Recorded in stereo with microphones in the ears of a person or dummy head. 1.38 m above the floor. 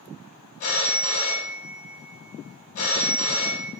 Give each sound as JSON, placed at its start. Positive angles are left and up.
{"t": 0.6, "sound": "a phone ringing", "side_deg": 45, "distance_m": 0.7}